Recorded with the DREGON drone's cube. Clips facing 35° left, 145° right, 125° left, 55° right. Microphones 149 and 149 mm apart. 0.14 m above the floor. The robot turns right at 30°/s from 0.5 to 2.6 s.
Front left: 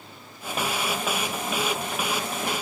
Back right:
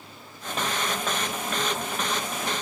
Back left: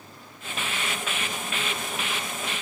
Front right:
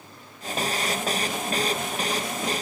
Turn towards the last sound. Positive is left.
No sound to turn to.